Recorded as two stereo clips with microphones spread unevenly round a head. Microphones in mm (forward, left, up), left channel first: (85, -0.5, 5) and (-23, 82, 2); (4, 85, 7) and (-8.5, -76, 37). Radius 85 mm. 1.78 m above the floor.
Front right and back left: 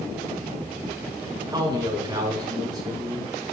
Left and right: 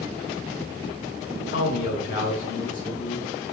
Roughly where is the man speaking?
Left.